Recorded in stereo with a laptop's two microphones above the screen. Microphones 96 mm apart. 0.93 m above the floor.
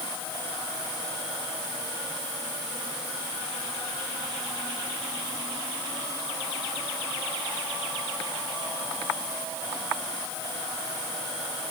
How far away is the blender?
No blender in this recording.